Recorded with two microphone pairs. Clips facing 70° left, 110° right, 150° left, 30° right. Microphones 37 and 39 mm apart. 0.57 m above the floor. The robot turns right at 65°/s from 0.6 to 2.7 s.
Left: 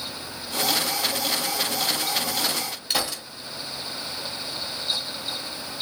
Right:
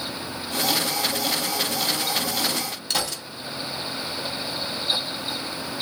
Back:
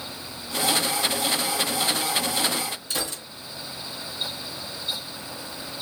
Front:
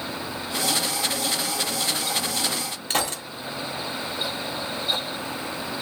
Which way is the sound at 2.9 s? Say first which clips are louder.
Left 1 dB, front 10 dB; 5° right.